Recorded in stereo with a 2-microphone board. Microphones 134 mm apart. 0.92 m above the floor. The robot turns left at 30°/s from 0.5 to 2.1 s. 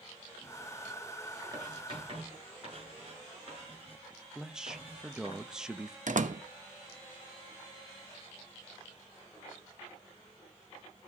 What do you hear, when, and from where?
1.5 s writing: 30° right (ahead or behind), 7.5 m; by 5.3 s 45° right (ahead or behind), 7.5 m
4.3 s a man speaking: 5° right (ahead or behind), 1.0 m
6.1 s a door slam: 70° right (ahead or behind), 0.9 m